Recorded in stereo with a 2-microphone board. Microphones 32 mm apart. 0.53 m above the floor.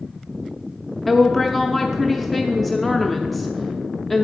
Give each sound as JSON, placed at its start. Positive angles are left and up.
{"t": 1.1, "sound": "a woman speaking", "side_deg": 0, "distance_m": 0.7}